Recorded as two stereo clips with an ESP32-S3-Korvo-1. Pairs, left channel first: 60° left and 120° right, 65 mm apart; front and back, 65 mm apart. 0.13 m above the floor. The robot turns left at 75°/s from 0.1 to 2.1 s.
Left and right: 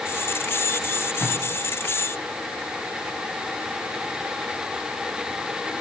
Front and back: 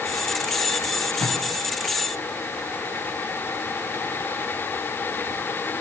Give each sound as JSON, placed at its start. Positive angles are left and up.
{"t": 1.2, "sound": "tape being pulled", "azimuth_deg": 0, "distance_m": 3.0}